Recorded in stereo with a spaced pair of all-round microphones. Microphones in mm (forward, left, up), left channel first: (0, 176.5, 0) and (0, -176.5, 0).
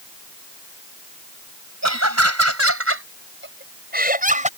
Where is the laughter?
45° right (ahead or behind); by 4.5 s 20° right (ahead or behind).